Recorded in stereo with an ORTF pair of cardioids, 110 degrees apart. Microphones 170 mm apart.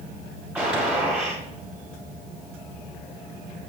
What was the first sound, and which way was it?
A gunshot, 5° right.